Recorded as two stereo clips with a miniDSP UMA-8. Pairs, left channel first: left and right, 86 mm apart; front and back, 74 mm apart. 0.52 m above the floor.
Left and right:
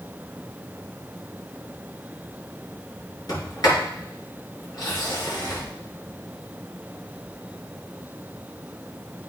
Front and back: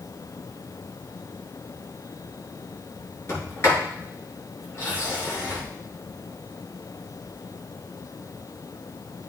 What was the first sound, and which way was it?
A sliding door, 50° left.